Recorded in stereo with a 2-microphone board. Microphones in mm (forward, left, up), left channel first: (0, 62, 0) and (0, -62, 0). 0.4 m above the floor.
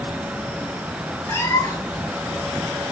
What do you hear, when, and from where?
1.3 s a cat meowing: 25° left (ahead or behind), 1.8 m